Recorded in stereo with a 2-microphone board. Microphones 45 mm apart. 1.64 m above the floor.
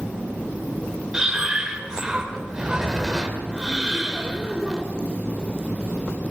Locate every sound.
1.1 s breathing: 15° right (ahead or behind), 3 m